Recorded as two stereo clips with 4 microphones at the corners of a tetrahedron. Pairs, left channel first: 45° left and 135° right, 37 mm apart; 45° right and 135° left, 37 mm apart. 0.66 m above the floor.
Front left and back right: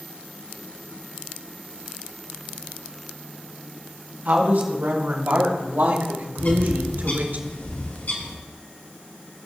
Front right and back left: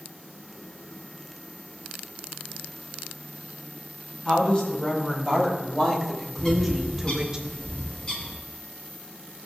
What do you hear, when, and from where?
4.2 s a woman speaking: 110° right, 3.5 m; by 7.4 s 155° right, 1.9 m
6.4 s a bird: 20° left, 2.5 m